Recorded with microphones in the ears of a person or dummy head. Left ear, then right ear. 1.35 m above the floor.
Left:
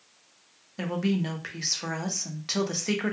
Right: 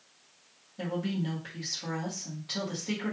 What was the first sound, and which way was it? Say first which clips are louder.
A woman speaking: left 4 dB; 65° left (ahead or behind).